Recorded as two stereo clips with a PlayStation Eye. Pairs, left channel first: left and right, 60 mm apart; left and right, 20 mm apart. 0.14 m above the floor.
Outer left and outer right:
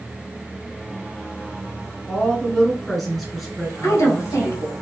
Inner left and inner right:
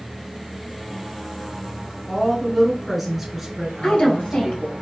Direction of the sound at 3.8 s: 60° left (ahead or behind).